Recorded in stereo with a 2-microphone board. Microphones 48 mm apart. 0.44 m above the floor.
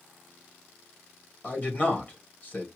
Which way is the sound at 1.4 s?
35° left (ahead or behind).